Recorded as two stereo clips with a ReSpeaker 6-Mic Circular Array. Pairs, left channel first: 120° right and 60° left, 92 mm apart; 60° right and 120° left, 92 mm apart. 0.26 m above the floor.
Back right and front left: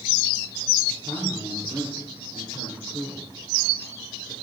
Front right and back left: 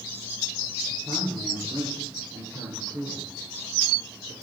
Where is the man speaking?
100° left, 5.5 m; by 4.3 s 95° left, 4 m.